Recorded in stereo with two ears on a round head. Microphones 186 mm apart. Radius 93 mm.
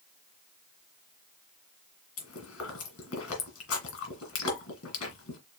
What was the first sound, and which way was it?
Chewing, 75° left (ahead or behind).